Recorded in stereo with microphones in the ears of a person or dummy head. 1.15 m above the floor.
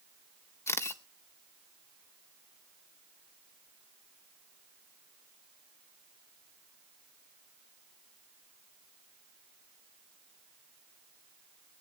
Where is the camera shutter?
10° left (ahead or behind), 0.7 m.